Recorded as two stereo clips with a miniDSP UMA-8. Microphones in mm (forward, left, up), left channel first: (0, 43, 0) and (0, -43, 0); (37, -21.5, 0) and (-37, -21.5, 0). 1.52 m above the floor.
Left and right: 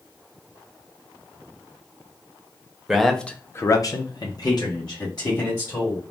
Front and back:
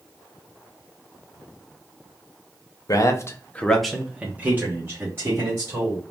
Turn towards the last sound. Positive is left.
turn(degrees=130)